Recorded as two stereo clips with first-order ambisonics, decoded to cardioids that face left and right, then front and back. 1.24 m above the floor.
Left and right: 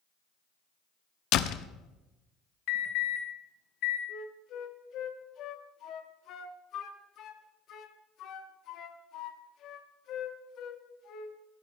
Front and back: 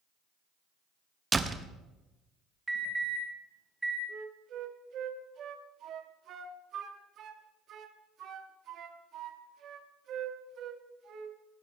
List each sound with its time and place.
1.3 s a door slam: 110° left, 0.7 m
2.7 s an alarm: 100° left, 3 m
4.1 s a flute: 130° left, 1.1 m